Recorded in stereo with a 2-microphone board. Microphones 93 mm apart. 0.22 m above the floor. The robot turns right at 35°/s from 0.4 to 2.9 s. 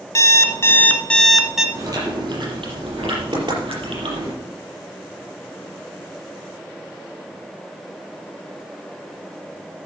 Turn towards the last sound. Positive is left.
turn(degrees=-65)  # may be behind; listen again after turning